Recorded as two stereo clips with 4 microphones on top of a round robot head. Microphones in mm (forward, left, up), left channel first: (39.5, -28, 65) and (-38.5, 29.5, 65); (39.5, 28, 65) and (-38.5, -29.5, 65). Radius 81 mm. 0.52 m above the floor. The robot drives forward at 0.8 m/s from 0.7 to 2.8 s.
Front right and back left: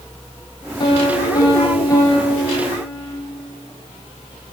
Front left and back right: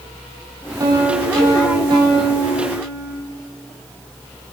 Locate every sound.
0.8 s a piano: 85° right, 5.5 m; by 3.1 s 105° right, 5.5 m